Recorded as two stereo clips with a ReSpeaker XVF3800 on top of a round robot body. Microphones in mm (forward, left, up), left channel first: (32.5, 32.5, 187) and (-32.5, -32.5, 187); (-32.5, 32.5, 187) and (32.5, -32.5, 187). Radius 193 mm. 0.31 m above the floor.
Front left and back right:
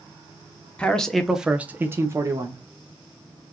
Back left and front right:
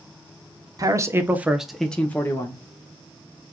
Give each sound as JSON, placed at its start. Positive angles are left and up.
{"t": 0.8, "sound": "a man speaking", "azimuth_deg": -25, "distance_m": 1.1}